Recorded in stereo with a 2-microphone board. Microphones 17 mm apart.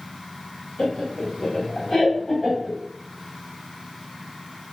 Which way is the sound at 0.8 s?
30° left (ahead or behind).